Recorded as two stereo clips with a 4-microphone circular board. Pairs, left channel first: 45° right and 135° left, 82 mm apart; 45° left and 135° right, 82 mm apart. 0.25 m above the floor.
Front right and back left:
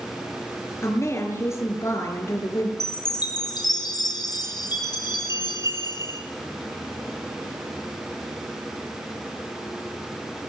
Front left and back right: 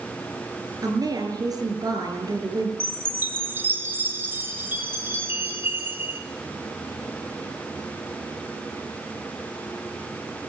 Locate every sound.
0.8 s a woman speaking: 100° right, 5 m
2.8 s a chime: 70° right, 3 m